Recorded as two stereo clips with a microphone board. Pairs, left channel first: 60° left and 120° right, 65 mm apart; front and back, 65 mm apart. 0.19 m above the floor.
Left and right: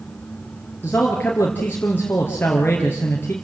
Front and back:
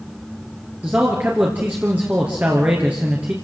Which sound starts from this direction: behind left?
A man speaking, at 0.8 s.